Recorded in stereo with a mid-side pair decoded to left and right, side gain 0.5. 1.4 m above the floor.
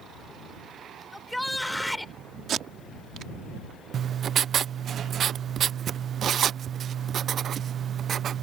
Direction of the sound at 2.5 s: 60° right.